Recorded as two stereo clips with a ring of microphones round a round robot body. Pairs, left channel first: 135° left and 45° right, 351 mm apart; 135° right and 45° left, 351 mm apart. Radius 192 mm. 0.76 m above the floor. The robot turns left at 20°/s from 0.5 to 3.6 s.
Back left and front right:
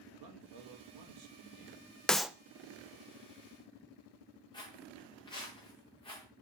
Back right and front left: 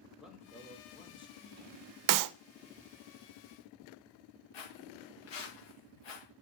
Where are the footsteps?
145° right, 7 m; by 6.2 s 150° right, 6 m.